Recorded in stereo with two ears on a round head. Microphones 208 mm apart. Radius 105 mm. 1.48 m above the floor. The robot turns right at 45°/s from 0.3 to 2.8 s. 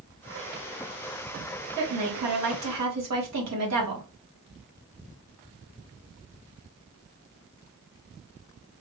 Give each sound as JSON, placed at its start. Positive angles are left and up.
{"t": 1.8, "sound": "a woman speaking", "azimuth_deg": -120, "distance_m": 1.8}